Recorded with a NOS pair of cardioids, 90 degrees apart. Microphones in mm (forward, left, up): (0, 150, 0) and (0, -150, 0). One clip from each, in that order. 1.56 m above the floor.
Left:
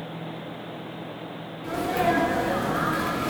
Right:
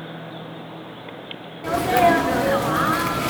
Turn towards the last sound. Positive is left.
turn(degrees=-50)